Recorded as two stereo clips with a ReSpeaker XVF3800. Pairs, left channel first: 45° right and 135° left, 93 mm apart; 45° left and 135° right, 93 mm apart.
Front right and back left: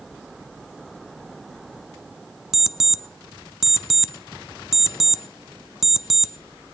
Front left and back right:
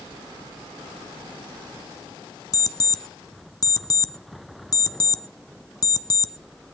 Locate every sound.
2.5 s an alarm clock: 50° left, 0.5 m